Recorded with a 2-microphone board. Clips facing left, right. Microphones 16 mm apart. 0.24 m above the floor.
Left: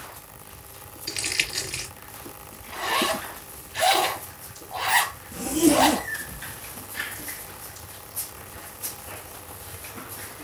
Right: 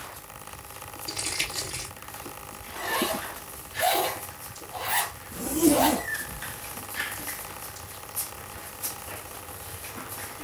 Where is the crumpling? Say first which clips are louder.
Left 4 dB; 70° left (ahead or behind), 2.0 m.